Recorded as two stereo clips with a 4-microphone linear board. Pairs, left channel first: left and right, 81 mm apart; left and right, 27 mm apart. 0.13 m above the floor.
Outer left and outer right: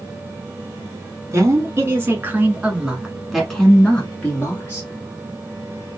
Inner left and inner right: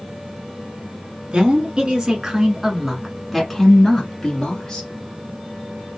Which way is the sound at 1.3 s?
40° right (ahead or behind).